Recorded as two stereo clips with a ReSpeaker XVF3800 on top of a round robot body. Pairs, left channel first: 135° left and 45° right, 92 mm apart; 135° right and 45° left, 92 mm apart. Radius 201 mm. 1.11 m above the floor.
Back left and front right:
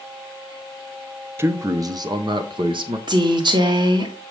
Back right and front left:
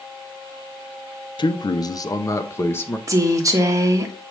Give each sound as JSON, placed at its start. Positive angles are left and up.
{"t": 1.4, "sound": "a man speaking", "azimuth_deg": -105, "distance_m": 0.9}
{"t": 3.1, "sound": "a woman speaking", "azimuth_deg": -10, "distance_m": 1.6}